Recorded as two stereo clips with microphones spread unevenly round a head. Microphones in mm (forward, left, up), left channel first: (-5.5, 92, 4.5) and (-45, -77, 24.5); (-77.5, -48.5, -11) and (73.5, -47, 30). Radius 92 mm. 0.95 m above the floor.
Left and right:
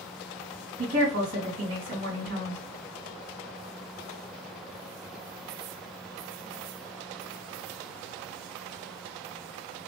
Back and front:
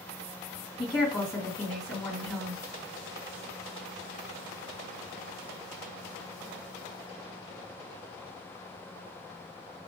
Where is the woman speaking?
115° right, 1.7 m.